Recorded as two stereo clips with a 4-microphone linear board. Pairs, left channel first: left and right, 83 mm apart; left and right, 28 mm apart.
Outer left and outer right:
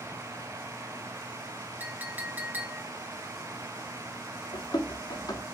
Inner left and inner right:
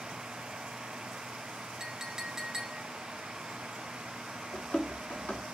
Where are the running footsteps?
55° left (ahead or behind), 3 m.